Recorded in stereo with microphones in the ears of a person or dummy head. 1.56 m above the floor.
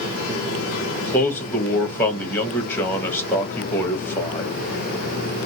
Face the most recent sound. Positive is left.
turn(degrees=15)  # may be behind; listen again after turning